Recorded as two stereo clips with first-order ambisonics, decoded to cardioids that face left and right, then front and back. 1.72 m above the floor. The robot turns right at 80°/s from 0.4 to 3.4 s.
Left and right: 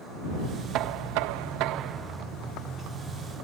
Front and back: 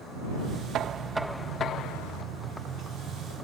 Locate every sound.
0.7 s knocking: 135° right; by 2.2 s 15° right